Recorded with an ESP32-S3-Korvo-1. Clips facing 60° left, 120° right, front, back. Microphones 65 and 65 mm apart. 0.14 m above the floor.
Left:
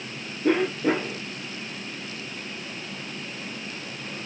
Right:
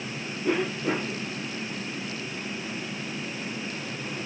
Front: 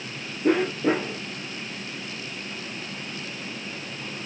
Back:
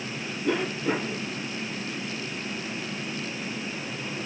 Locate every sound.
0.4 s a cough: 15° left, 3 m